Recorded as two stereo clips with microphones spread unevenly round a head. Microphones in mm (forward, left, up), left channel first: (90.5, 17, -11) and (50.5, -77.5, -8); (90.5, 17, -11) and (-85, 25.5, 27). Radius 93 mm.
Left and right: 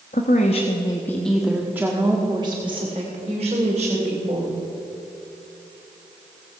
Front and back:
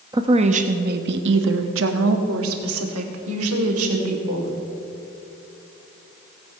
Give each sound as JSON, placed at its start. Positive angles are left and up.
{"t": 0.1, "sound": "a woman speaking", "azimuth_deg": 105, "distance_m": 0.9}